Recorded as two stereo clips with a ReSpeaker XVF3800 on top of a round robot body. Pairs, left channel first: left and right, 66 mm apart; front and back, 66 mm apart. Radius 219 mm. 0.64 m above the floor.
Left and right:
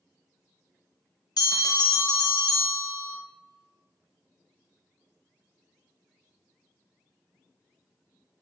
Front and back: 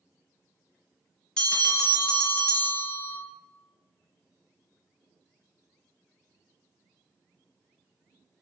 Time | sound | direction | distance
1.4 | a bell | 80° left | 0.6 m